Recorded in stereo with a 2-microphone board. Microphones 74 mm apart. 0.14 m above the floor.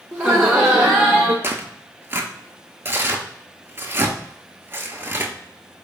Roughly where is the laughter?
Centre.